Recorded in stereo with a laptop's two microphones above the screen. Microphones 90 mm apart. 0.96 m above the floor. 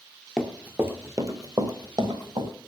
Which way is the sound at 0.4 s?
5° right (ahead or behind).